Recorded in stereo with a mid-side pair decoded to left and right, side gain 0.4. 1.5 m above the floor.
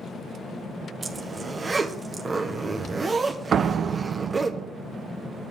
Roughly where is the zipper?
Ahead right.